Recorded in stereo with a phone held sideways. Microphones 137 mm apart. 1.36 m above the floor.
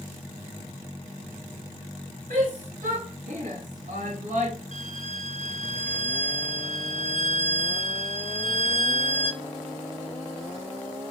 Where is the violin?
60° right (ahead or behind), 0.8 m.